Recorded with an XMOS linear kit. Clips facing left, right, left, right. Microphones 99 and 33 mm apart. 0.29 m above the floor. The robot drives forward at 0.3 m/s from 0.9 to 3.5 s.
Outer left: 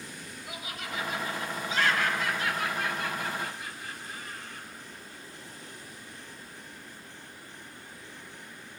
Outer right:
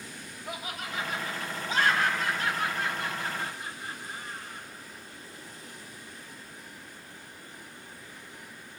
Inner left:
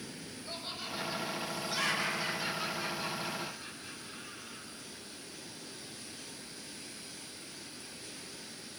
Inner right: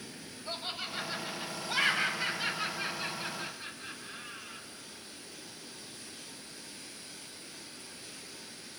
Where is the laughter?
45° right (ahead or behind), 1.3 m; by 4.7 s 35° right (ahead or behind), 1.5 m.